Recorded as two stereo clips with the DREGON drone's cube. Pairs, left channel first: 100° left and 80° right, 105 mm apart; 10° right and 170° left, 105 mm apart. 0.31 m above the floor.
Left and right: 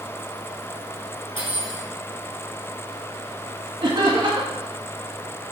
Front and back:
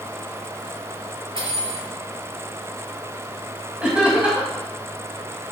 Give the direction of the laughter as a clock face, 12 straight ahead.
4 o'clock.